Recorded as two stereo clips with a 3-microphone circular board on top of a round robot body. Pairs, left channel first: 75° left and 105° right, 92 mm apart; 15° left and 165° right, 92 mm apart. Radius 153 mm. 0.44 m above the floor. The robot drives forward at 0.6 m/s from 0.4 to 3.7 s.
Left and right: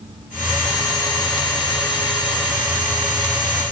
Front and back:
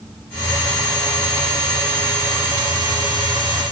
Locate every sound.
Only background noise.